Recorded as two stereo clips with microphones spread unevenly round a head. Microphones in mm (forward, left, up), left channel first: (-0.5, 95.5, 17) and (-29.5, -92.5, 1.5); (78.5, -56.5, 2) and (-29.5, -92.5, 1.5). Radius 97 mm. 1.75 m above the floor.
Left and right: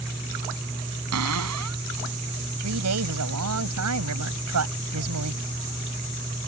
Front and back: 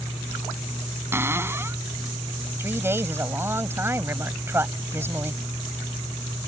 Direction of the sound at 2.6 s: 90° right.